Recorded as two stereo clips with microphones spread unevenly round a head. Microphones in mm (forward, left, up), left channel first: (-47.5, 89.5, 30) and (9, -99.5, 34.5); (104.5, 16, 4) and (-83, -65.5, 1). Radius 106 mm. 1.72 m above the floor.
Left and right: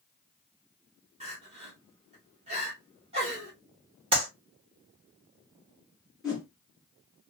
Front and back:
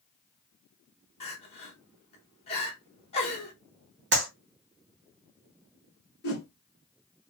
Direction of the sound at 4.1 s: 130° right.